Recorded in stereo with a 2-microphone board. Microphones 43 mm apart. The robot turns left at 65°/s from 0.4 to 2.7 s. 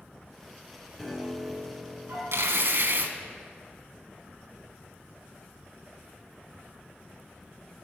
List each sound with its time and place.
1.0 s a piano: 5° left, 3 m; by 2.2 s 75° right, 3 m
2.3 s tearing paper: 80° right, 0.6 m; by 3.1 s 65° right (ahead or behind), 0.6 m